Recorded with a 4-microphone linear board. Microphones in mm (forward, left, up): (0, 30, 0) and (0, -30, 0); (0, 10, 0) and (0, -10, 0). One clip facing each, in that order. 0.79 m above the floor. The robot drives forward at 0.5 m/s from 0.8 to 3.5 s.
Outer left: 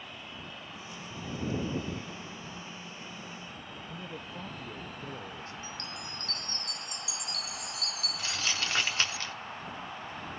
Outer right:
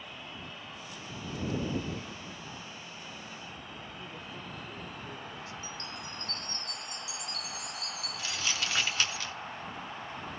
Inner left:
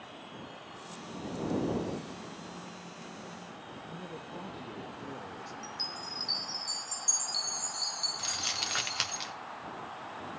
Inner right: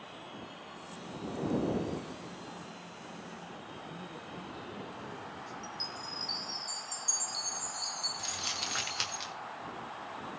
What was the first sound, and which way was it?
A man speaking, 40° left (ahead or behind).